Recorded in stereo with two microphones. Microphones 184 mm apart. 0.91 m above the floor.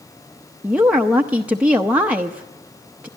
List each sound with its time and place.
0.6 s a woman speaking: 5° right (ahead or behind), 0.6 m